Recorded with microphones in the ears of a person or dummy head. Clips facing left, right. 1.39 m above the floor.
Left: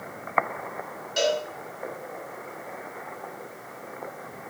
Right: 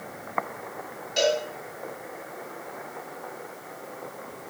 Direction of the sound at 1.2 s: 10° left (ahead or behind).